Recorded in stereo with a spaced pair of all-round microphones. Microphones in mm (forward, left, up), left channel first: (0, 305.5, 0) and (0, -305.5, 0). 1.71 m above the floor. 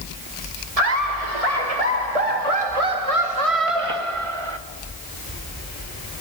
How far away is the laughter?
About 4 m.